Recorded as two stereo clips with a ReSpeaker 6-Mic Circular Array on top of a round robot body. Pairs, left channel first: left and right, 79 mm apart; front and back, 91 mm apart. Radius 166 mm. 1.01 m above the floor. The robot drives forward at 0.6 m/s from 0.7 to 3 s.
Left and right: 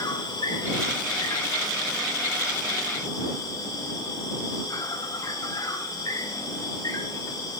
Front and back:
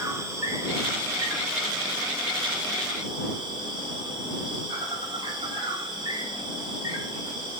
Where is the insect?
120° left, 3.5 m; by 7.6 s 135° left, 4.5 m.